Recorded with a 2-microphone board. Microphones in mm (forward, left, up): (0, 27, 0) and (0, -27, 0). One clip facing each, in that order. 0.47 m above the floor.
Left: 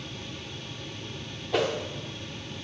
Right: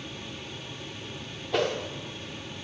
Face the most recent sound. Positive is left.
turn(degrees=0)  # may be behind; listen again after turning